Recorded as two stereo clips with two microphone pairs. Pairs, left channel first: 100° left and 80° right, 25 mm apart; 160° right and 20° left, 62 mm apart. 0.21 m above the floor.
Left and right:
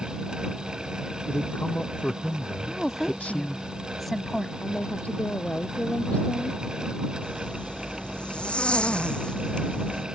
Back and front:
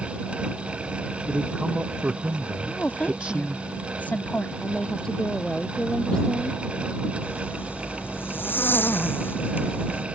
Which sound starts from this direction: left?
A man speaking, at 1.3 s.